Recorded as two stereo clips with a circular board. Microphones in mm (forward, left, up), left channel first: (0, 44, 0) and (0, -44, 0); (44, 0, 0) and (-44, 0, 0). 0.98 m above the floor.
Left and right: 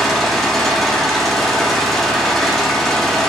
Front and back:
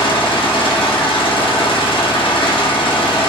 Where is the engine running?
Straight ahead, 0.7 m.